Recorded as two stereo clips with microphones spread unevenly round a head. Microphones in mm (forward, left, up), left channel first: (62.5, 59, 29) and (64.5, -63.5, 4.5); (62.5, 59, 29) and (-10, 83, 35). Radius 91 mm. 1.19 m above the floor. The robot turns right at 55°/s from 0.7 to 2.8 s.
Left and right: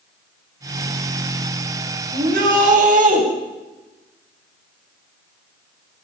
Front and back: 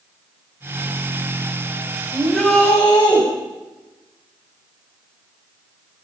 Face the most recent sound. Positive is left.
turn(degrees=-80)